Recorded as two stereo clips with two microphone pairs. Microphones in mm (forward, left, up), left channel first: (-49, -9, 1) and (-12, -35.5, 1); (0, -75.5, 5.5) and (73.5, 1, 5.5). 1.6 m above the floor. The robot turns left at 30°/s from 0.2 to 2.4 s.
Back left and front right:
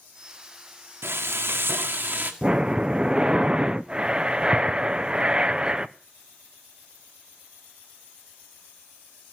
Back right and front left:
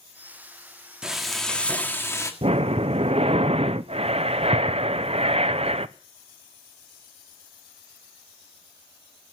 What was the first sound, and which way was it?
Frying, 35° right.